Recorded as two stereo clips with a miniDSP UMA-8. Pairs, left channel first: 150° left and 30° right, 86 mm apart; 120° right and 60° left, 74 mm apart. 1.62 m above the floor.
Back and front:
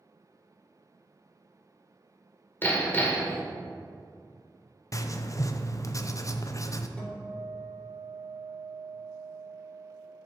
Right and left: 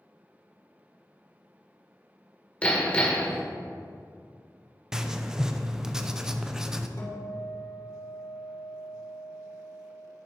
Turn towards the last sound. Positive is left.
turn(degrees=-140)